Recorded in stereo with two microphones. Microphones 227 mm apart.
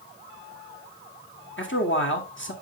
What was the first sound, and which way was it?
A man speaking, 60° left (ahead or behind).